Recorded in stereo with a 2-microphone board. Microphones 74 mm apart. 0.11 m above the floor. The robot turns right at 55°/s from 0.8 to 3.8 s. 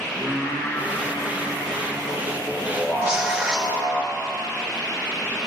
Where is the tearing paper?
15° right, 4 m; by 3.7 s 20° left, 4 m.